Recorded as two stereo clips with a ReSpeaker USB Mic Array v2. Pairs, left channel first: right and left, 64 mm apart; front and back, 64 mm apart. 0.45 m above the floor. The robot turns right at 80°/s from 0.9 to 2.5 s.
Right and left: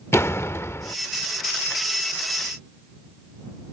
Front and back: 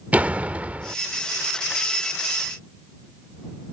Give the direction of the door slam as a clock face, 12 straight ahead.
4 o'clock.